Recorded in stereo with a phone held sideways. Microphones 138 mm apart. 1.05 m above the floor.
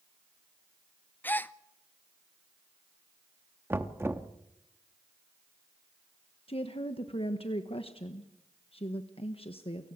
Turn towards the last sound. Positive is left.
turn(degrees=45)  # may be behind; listen again after turning